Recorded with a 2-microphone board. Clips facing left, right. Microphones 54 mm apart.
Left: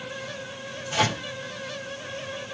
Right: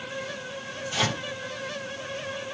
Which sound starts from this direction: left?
A microwave, at 0.9 s.